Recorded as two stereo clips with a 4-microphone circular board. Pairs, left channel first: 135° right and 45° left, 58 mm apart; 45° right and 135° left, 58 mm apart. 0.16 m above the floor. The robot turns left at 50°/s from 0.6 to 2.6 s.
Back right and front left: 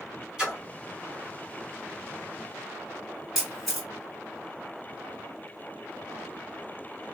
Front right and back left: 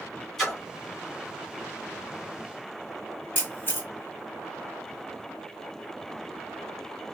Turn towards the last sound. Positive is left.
turn(degrees=-40)